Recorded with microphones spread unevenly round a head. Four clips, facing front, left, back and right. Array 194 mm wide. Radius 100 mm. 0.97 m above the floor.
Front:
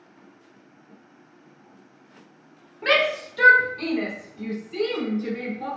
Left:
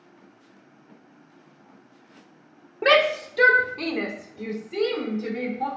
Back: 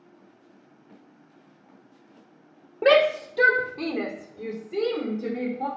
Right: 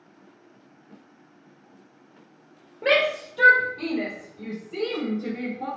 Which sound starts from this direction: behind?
A shout, at 2.8 s.